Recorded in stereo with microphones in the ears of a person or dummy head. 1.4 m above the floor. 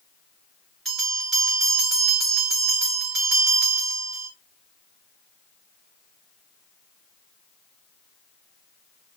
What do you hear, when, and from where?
0.8 s a bell: 5° left (ahead or behind), 1.9 m